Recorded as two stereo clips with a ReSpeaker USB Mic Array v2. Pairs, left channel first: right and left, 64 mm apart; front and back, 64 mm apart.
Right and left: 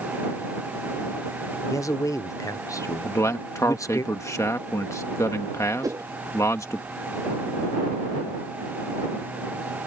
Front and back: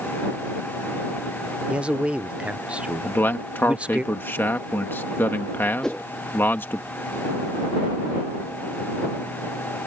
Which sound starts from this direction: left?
A whoosh, at 5.8 s.